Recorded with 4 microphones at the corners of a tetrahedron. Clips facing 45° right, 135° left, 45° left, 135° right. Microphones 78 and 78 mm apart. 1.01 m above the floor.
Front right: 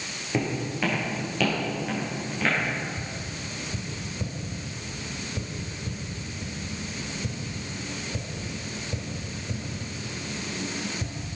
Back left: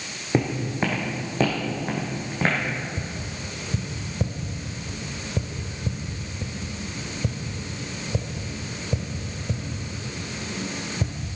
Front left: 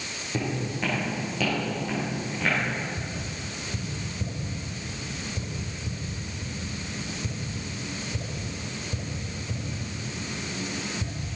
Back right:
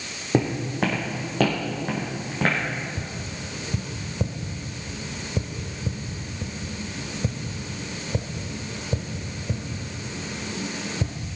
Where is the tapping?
170° right, 1.4 m.